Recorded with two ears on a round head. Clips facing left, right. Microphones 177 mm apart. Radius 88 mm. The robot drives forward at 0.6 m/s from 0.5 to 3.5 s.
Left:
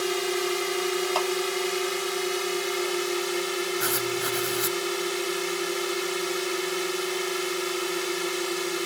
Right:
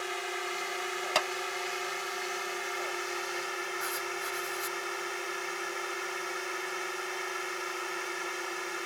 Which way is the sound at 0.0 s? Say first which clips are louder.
Left 11 dB; 60° left (ahead or behind).